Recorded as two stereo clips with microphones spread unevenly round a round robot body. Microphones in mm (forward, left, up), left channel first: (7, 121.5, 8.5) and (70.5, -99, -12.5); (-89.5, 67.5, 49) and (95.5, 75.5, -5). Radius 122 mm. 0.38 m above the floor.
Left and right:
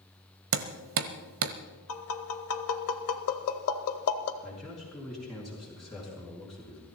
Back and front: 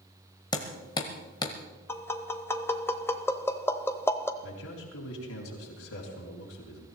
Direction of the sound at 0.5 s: 100° right.